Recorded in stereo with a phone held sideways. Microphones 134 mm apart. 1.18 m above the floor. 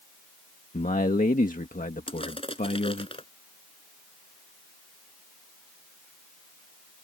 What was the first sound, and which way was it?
A man speaking, 70° left (ahead or behind).